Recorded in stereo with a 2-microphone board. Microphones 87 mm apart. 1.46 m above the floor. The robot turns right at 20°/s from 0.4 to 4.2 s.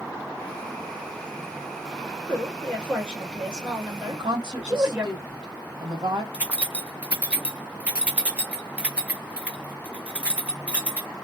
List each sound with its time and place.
2.3 s a woman speaking: 160° left, 1.7 m; by 5.1 s 160° right, 1.7 m
4.1 s a woman speaking: 60° right (ahead or behind), 1.9 m
6.3 s keys jangling: 15° right (ahead or behind), 0.6 m